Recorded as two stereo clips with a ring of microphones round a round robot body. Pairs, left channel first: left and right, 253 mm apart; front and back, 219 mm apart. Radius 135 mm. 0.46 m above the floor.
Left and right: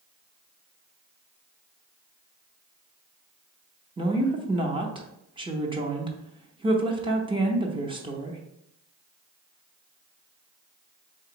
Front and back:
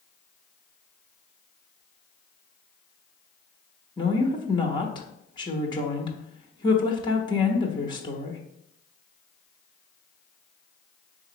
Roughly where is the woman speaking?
Ahead right.